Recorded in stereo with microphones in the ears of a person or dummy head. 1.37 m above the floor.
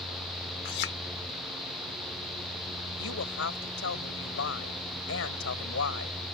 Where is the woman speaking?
85° left.